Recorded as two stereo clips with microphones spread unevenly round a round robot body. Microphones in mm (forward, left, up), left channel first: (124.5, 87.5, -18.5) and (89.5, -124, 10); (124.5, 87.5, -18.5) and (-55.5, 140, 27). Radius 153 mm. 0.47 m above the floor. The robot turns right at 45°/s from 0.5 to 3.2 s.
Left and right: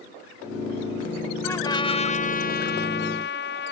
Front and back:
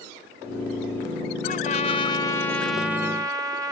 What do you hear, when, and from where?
1.4 s a trumpet: 5° left; by 3.7 s 85° left